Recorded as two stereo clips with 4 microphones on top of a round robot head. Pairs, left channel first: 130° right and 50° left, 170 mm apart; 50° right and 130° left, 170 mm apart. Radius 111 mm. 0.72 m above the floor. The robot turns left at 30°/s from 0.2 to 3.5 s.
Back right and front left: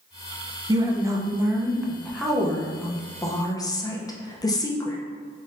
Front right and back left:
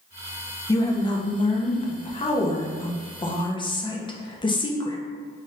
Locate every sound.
0.7 s a woman speaking: 5° left, 0.6 m; by 5.0 s 80° right, 0.6 m